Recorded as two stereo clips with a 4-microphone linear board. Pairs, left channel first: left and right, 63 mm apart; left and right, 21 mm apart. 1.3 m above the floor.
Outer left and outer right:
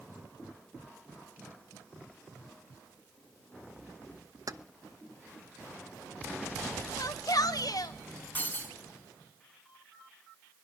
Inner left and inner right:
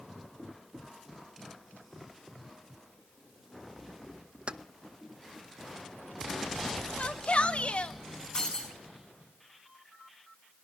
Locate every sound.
4.5 s keys jangling: 60° right (ahead or behind), 0.6 m
7.0 s a shout: 70° left (ahead or behind), 1.6 m
8.3 s breaking glass: 30° left (ahead or behind), 5 m